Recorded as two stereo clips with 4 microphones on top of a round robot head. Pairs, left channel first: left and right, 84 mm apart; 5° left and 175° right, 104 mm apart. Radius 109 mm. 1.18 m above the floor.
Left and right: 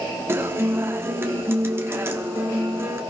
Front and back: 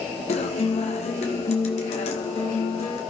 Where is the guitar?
30° right, 1.5 m.